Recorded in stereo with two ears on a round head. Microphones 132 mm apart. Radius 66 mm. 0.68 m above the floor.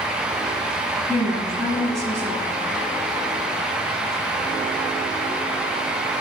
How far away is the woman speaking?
About 5.5 m.